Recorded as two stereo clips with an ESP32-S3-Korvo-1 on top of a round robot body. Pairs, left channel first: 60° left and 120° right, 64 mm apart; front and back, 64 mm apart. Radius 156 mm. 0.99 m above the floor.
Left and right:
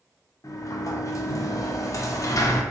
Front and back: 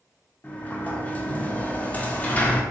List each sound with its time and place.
0.4 s a sliding door: 60° left, 0.7 m